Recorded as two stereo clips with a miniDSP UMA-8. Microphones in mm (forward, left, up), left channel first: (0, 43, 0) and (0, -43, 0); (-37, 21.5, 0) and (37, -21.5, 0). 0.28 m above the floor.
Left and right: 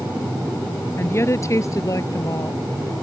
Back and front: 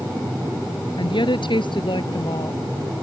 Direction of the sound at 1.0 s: 150° left.